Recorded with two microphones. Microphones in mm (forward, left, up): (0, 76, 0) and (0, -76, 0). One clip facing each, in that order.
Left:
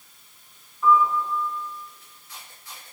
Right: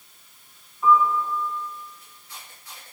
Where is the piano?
10° right (ahead or behind), 3 m.